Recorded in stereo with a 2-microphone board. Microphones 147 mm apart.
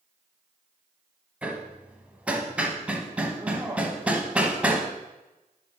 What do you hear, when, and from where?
1.4 s hammering: 10° right (ahead or behind), 0.9 m